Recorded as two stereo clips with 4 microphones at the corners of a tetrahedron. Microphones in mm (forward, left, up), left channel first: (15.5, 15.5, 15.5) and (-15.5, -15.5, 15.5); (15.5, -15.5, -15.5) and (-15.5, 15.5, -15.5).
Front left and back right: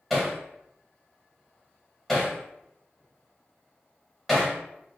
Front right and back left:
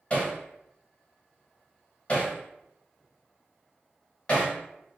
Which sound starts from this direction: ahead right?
Hammering, at 0.1 s.